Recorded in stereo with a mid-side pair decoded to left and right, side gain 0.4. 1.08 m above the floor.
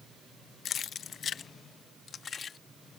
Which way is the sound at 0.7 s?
65° left.